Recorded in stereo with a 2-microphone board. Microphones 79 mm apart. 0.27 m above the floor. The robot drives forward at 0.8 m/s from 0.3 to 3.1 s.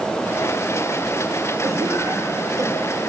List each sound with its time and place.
1.6 s a cough: 40° right (ahead or behind), 7 m; by 3.0 s 50° right (ahead or behind), 6 m